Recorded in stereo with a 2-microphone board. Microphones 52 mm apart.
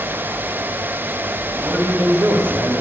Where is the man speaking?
80° right, 2.5 m; by 2.8 s 65° right (ahead or behind), 1.4 m.